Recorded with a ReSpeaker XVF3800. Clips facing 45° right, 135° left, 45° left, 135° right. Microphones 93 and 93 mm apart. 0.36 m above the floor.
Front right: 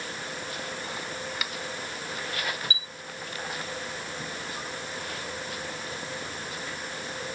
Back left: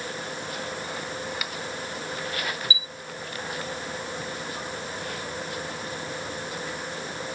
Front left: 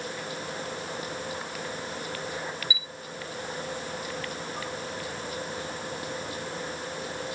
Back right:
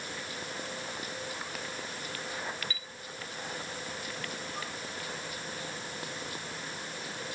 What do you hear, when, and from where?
2.7 s a chime: 35° right